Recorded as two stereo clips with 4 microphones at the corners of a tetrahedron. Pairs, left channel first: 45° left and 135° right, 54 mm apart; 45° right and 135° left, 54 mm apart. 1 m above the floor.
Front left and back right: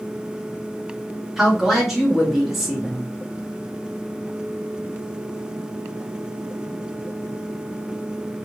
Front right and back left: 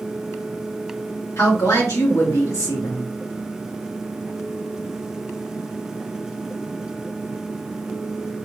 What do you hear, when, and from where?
1.4 s a woman speaking: 50° right, 2.0 m